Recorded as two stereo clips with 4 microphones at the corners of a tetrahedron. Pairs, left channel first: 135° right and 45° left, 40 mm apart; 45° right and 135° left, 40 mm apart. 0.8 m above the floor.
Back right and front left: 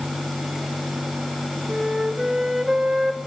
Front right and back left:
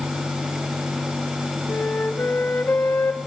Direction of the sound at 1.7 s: 35° right.